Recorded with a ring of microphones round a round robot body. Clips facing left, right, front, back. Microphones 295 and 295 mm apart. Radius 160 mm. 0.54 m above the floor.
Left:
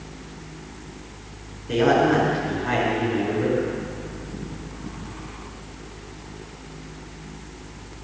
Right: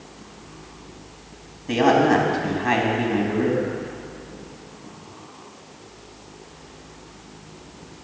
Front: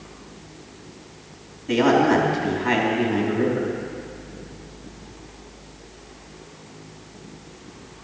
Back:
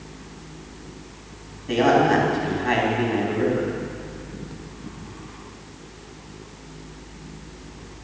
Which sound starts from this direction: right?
A man speaking, at 1.7 s.